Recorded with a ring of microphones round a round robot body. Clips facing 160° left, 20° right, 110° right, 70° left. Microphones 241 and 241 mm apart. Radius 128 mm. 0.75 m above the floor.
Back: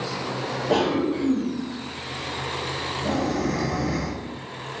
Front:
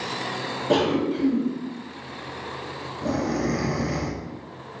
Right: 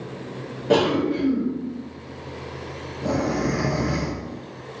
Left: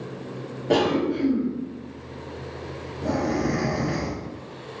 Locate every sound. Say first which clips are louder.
0.7 s a cough: front 1 dB, right 2 dB; 35° right, 1.1 m